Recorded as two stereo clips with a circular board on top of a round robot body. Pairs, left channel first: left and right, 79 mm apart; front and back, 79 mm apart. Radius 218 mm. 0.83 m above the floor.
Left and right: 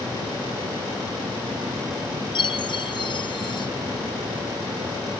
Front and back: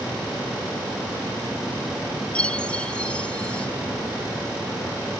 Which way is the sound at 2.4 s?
75° left.